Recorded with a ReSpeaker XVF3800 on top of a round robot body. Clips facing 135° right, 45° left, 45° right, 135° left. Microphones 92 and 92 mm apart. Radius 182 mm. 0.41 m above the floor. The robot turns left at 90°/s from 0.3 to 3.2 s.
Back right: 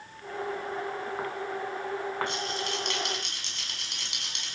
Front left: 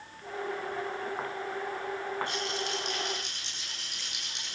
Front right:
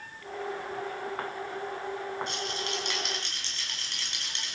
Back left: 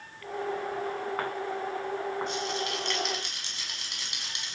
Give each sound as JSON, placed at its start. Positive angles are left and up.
{"t": 2.3, "sound": "a rattle", "azimuth_deg": -65, "distance_m": 5.5}